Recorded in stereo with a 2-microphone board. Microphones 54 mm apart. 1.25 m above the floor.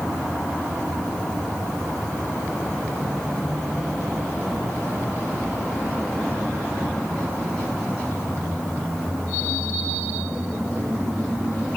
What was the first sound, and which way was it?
Only background noise.